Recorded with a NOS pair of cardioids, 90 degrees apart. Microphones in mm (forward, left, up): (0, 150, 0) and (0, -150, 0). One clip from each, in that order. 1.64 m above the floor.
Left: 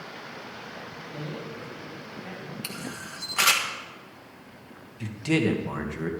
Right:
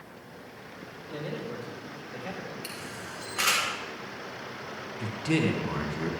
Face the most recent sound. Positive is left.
turn(degrees=15)